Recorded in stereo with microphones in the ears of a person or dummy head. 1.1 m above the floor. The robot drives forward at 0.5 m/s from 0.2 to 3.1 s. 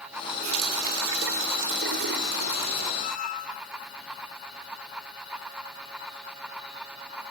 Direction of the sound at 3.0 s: 45° left (ahead or behind).